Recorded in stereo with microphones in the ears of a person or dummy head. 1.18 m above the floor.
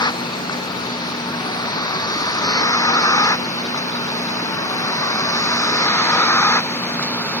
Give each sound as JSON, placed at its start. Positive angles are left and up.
{"t": 0.0, "sound": "a vehicle", "side_deg": 20}